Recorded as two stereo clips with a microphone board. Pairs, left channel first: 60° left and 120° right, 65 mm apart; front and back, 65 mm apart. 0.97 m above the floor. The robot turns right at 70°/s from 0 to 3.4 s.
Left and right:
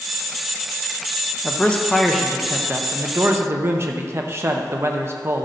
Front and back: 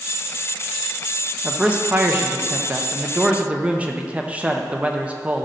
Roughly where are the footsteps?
I don't hear footsteps.